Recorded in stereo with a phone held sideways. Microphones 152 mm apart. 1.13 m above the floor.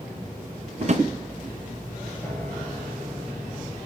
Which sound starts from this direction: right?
A drawer, at 0.8 s.